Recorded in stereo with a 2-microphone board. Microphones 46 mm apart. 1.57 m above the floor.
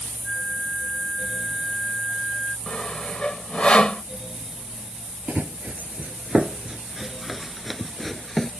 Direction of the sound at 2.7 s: 25° left (ahead or behind).